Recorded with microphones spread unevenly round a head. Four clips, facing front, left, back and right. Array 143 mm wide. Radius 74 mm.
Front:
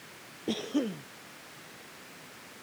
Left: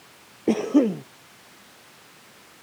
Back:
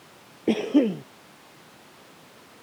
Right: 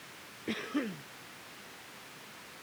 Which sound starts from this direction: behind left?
A cough, at 0.5 s.